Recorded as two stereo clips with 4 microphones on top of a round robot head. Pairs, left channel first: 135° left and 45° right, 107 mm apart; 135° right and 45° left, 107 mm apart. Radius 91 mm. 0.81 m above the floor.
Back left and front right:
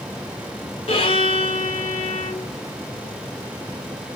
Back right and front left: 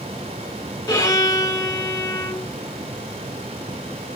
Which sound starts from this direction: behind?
A violin, at 0.9 s.